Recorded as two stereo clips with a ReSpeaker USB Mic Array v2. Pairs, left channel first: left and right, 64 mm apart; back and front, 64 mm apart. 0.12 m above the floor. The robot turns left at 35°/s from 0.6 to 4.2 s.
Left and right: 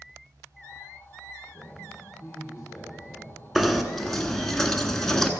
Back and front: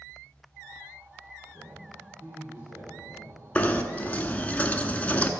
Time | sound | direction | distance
1.5 | a man speaking | 40° left | 4.5 m
3.5 | knocking | 175° right | 0.7 m